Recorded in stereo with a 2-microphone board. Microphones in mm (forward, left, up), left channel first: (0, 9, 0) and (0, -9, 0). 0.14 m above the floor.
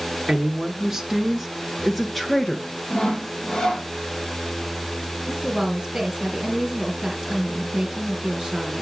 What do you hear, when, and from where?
0.3 s a woman speaking: 30° right (ahead or behind), 1.5 m; by 2.8 s 10° left (ahead or behind), 1.9 m
2.9 s sawing: 40° left (ahead or behind), 2.5 m
5.3 s a woman speaking: 35° right (ahead or behind), 3 m